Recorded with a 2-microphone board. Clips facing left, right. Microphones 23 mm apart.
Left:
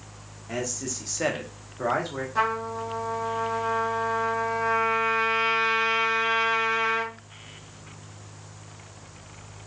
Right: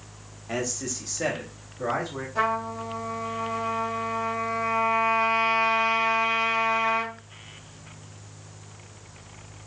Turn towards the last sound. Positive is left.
turn(degrees=30)  # may be behind; listen again after turning